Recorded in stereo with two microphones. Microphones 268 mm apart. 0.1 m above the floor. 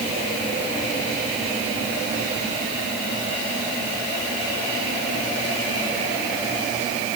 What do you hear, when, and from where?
Only background noise.